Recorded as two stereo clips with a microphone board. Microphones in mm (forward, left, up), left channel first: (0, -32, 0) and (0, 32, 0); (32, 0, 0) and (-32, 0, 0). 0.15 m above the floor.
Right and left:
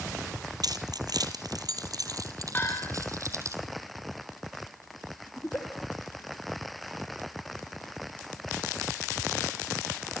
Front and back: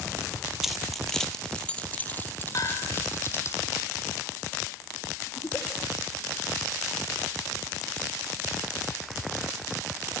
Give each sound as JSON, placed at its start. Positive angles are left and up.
{"t": 0.6, "sound": "keys jangling", "azimuth_deg": 95, "distance_m": 3.0}
{"t": 2.5, "sound": "a bell", "azimuth_deg": -30, "distance_m": 8.5}
{"t": 5.4, "sound": "a giggle", "azimuth_deg": -35, "distance_m": 3.5}